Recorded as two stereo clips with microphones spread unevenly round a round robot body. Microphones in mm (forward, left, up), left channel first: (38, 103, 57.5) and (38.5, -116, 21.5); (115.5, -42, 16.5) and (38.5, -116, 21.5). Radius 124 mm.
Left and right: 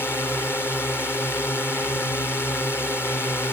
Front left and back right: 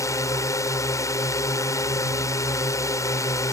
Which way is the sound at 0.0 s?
5° left.